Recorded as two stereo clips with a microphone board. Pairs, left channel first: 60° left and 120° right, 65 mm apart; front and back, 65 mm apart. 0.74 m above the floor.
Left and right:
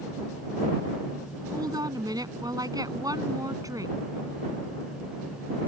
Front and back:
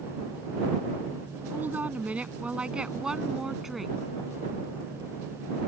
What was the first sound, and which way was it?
A woman speaking, 120° right.